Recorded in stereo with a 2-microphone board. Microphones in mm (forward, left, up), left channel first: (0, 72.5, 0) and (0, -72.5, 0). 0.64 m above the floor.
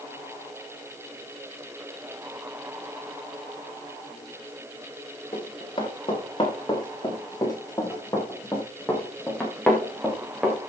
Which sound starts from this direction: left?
Running footsteps, at 5.3 s.